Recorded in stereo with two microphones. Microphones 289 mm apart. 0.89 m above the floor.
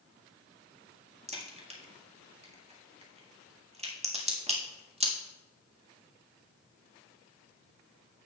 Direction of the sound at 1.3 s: 20° right (ahead or behind).